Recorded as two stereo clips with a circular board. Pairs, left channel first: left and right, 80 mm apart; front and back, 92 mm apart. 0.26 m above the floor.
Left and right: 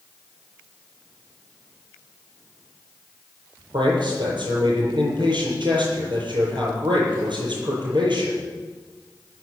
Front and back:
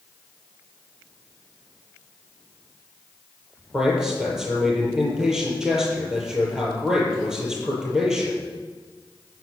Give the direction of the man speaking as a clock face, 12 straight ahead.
3 o'clock.